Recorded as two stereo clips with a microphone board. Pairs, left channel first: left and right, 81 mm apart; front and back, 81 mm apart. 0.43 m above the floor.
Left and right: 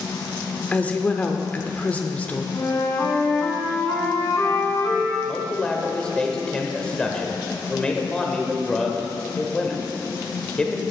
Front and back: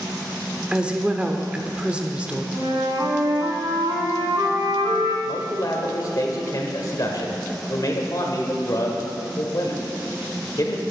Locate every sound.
0.7 s a woman speaking: 125° left, 0.8 m
2.5 s a flute: 150° left, 1.8 m
5.2 s a man speaking: 15° left, 1.4 m